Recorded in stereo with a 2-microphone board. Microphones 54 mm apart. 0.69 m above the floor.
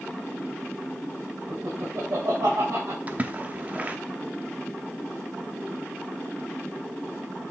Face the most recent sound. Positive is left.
turn(degrees=-30)  # may be behind; listen again after turning